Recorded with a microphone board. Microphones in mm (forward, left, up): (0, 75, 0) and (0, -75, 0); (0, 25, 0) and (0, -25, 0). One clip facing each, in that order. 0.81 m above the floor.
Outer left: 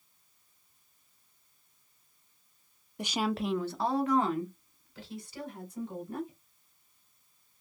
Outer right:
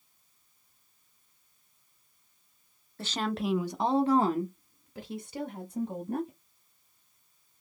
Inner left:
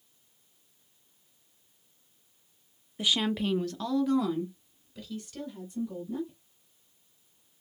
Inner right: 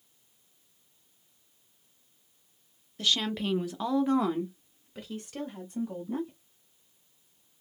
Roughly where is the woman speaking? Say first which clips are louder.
Even, inner left 1 dB; centre.